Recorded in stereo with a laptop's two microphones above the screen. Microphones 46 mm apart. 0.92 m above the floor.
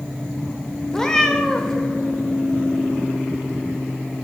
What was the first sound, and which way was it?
A cat meowing, 15° left (ahead or behind).